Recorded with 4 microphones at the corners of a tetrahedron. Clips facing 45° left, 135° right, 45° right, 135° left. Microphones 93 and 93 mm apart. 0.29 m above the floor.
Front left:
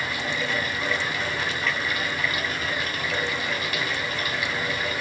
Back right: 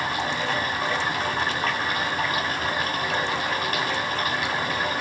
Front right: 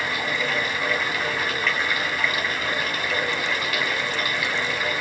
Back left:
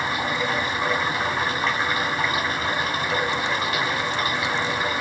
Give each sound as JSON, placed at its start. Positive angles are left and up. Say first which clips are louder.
{"t": 0.0, "sound": "running water", "louder": "back right 3 dB, back left 2 dB", "azimuth_deg": -170, "distance_m": 2.0}